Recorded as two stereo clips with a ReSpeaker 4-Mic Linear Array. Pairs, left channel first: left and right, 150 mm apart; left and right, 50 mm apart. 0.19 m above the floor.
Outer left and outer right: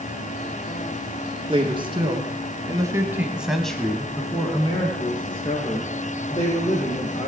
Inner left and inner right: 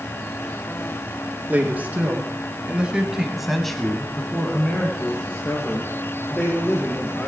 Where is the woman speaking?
35° right (ahead or behind), 3 m; by 7.3 s 35° left (ahead or behind), 5 m.